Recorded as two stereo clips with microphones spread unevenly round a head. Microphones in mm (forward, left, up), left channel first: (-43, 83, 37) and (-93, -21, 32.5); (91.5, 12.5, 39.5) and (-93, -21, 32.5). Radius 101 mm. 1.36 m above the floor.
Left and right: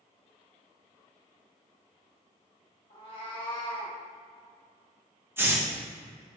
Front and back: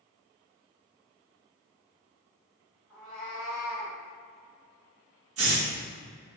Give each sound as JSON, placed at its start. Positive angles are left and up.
{"t": 2.9, "sound": "a cat meowing", "azimuth_deg": 95, "distance_m": 2.0}
{"t": 5.4, "sound": "a hiss", "azimuth_deg": 170, "distance_m": 1.6}